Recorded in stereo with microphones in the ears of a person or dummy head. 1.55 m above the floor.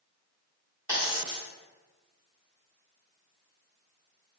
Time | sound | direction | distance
0.9 | a dropped coin | 15° right (ahead or behind) | 1.9 m